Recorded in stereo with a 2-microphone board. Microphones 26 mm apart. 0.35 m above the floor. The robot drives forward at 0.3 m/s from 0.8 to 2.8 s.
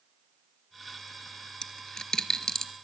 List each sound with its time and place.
1.6 s a dropped coin: 30° left (ahead or behind), 1.2 m; by 2.7 s 25° left (ahead or behind), 1.5 m